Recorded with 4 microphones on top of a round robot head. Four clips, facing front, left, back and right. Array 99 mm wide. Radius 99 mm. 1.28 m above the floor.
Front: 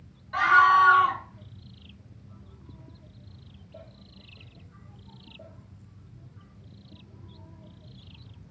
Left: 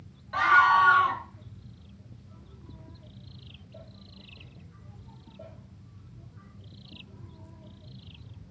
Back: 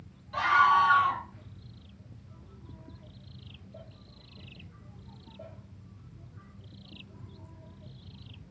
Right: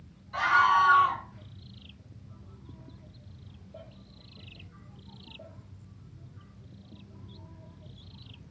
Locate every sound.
0.3 s a scream: 55° left, 2.5 m